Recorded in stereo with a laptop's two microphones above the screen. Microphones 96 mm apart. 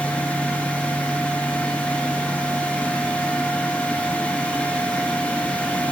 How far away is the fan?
About 1.4 m.